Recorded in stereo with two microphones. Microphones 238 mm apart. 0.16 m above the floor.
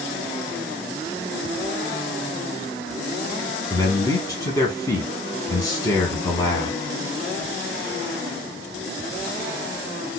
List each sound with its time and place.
3.7 s a man speaking: 15° left (ahead or behind), 1.3 m